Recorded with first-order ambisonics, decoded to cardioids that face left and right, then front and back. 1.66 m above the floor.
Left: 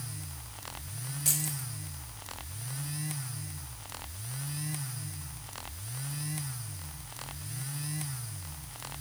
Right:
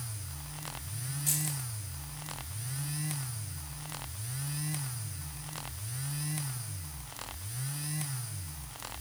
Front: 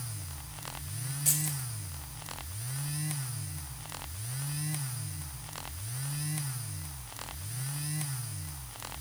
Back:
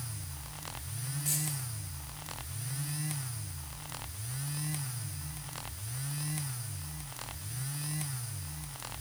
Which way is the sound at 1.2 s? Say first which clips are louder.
Left 3 dB, front 4 dB; 65° left.